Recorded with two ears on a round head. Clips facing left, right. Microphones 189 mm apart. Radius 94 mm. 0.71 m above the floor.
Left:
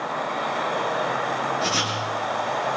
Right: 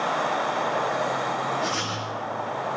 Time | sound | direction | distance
1.6 | writing | 50° left (ahead or behind) | 6.5 m